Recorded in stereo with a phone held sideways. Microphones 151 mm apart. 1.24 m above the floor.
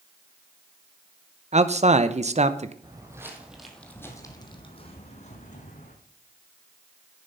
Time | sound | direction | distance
1.5 | a man speaking | 45° right (ahead or behind) | 0.7 m
2.8 | footsteps | 25° right (ahead or behind) | 1.9 m